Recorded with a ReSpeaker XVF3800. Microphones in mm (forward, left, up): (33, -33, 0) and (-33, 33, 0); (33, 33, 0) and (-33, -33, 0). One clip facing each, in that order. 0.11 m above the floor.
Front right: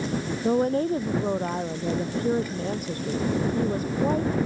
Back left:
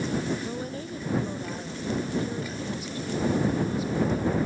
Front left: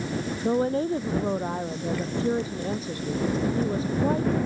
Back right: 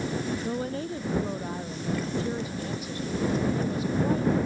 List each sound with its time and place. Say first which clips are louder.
0.4 s a woman speaking: front right 12 dB, front left 7 dB; 10° right